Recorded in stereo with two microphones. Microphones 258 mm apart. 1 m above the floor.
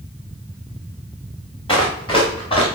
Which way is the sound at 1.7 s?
20° left (ahead or behind).